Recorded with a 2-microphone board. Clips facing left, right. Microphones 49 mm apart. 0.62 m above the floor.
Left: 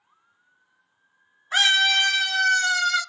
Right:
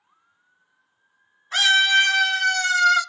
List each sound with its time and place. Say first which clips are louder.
1.5 s a scream: right 2 dB; 15° left (ahead or behind), 0.6 m; by 3.0 s 40° right (ahead or behind), 1.4 m